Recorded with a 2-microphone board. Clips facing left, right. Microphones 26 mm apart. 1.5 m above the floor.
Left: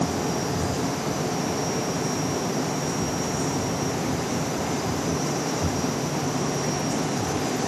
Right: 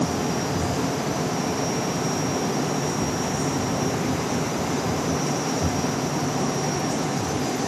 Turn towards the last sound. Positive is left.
No sound to turn to.